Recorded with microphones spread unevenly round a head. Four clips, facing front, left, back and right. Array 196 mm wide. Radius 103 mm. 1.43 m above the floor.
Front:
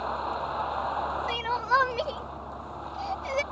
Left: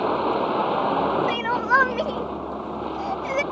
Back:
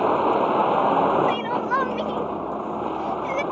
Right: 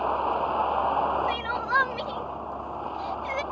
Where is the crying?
85° left.